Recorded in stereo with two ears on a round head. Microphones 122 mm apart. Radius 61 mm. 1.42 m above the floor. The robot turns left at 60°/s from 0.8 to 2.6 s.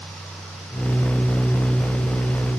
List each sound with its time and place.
Only background noise.